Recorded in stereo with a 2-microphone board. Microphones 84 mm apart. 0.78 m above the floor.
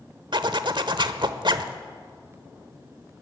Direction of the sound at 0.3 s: 65° right (ahead or behind).